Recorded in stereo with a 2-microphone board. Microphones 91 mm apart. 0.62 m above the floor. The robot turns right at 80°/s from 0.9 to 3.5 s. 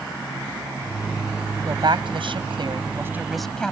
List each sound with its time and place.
1.6 s a woman speaking: 145° right; by 3.7 s 10° left